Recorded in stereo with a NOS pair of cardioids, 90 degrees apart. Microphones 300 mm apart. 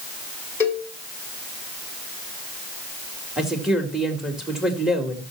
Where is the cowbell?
10° left, 4.5 m.